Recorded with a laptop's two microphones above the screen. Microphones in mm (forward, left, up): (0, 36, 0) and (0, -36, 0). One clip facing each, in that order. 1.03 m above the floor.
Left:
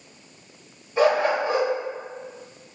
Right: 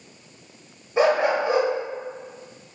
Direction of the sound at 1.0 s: 20° right (ahead or behind).